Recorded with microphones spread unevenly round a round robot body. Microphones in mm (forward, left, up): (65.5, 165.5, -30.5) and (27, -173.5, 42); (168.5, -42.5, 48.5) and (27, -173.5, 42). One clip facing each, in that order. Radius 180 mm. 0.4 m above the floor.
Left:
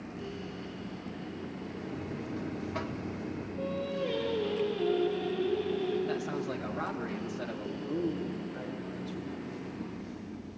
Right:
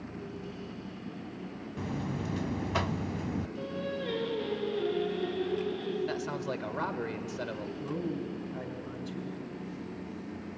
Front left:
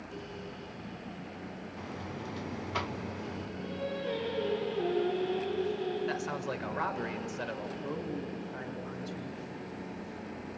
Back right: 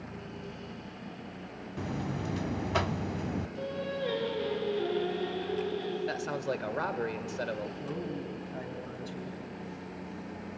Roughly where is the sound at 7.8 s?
Right.